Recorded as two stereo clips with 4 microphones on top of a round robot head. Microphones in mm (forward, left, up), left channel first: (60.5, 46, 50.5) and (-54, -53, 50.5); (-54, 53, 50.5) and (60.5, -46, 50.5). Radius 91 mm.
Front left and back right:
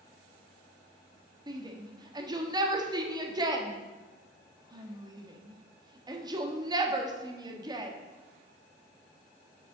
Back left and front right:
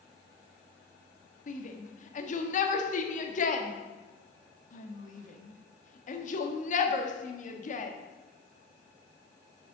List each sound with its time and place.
1.5 s a shout: 160° left, 1.4 m